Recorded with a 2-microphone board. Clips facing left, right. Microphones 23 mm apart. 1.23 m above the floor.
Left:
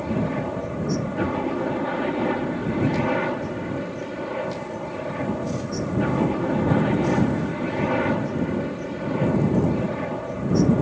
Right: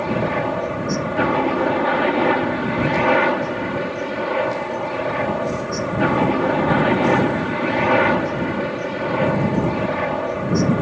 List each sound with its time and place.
0.0 s a helicopter: 35° right (ahead or behind)